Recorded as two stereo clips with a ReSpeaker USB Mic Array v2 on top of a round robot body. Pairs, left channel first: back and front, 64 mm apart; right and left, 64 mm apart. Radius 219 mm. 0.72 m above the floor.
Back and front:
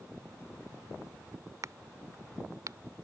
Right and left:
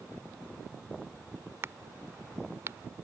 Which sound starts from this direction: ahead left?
A crack, at 1.6 s.